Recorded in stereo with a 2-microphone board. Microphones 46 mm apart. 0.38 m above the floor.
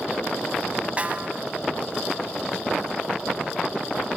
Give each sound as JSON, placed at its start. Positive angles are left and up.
{"t": 1.0, "sound": "a snare drum", "side_deg": -30, "distance_m": 1.4}